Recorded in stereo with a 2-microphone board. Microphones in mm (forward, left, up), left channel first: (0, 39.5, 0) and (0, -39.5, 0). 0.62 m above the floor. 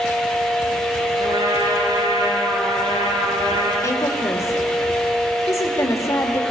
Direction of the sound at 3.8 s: 40° left (ahead or behind).